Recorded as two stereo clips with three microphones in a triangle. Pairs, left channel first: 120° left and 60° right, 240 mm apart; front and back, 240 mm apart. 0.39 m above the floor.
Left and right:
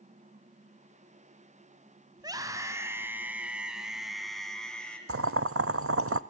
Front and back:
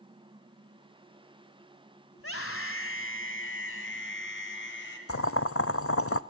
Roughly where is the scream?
Ahead.